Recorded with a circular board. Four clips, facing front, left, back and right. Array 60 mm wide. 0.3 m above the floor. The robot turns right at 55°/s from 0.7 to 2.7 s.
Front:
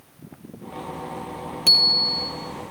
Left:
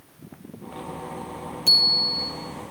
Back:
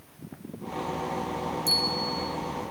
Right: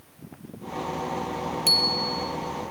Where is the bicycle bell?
15° right, 5.5 m; by 2.3 s 20° left, 5.5 m.